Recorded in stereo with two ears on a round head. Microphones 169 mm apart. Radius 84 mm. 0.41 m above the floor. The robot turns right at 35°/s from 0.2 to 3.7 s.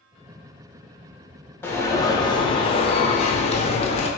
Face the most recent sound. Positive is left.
turn(degrees=95)